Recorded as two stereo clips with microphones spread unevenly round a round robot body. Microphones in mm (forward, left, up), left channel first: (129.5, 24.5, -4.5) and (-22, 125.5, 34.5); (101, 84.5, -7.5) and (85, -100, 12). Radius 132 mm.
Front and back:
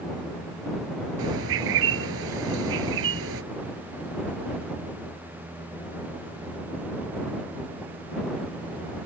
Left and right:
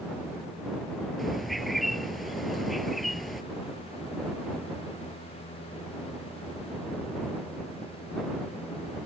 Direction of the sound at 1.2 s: 175° left.